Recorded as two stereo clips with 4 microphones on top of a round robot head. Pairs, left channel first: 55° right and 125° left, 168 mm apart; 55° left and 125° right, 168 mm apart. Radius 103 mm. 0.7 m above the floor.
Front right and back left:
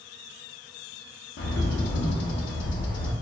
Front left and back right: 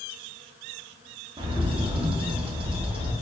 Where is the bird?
65° right, 0.5 m.